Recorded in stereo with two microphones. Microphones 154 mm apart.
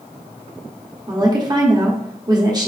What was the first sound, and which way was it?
A woman speaking, 30° right (ahead or behind).